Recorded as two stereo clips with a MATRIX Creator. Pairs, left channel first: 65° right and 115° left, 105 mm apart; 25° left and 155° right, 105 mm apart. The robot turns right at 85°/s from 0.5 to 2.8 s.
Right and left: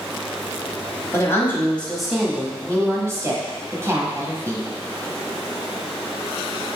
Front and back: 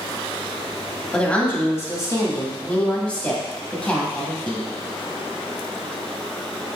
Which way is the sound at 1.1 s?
55° right.